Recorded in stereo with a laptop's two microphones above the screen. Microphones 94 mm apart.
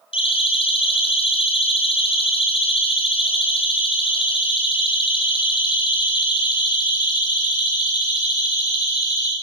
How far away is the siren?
About 5.5 m.